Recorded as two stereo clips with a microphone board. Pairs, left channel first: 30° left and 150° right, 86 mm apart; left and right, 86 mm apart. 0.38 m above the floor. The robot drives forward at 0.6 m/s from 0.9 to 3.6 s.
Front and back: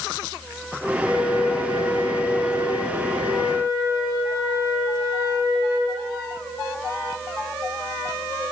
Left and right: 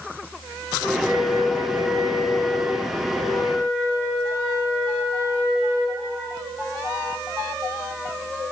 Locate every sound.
1.0 s a flute: 130° right, 3 m; by 6.0 s 145° right, 4 m